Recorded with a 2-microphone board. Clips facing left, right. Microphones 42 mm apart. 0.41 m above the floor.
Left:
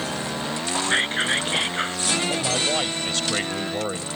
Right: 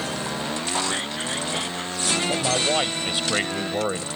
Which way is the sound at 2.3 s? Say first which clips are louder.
Right 1 dB; 15° right (ahead or behind).